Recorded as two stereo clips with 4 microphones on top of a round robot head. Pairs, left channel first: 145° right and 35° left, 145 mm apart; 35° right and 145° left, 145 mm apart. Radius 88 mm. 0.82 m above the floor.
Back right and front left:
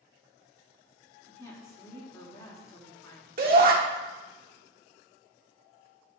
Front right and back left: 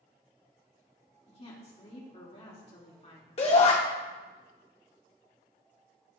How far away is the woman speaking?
About 2.0 m.